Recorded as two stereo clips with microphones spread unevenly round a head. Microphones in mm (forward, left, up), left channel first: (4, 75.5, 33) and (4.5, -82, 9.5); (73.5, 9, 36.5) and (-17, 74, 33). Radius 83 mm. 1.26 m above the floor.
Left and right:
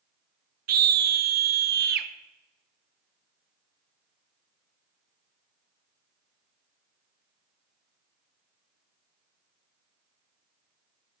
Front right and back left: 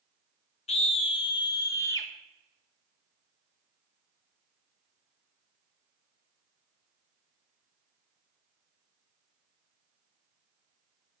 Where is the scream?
70° right, 0.9 m; by 2.1 s 105° right, 1.2 m.